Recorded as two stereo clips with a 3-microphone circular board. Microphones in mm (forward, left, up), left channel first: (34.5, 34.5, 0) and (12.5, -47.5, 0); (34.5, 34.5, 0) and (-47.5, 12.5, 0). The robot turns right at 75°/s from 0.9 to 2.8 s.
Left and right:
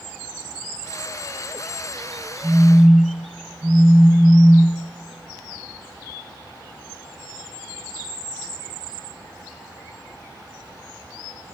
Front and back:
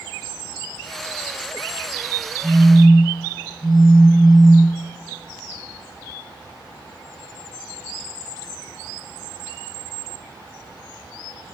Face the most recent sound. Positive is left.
turn(degrees=-175)